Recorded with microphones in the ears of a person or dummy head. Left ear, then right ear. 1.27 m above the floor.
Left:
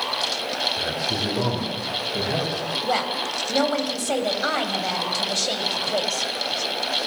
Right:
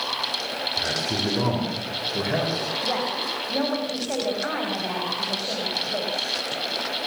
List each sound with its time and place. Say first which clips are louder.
0.8 s a man speaking: even; 15° right (ahead or behind), 5 m; by 2.7 s 5° right (ahead or behind), 6 m
2.8 s a woman speaking: left 4 dB; 85° left, 6 m